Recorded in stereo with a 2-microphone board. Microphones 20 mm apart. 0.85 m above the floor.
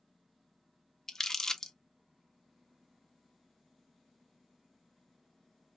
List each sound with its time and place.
1.1 s crumpling: 25° left (ahead or behind), 0.6 m